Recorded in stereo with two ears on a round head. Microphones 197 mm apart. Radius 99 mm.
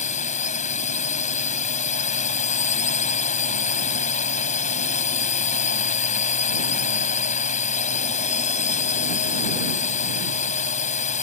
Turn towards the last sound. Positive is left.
turn(degrees=35)  # may be behind; listen again after turning